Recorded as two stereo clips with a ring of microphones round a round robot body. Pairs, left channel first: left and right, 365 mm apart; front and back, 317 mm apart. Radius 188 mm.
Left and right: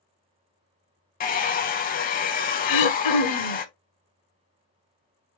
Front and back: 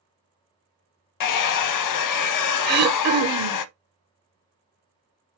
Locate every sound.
1.2 s a hair dryer: 25° left, 0.5 m
2.6 s throat clearing: 120° left, 0.8 m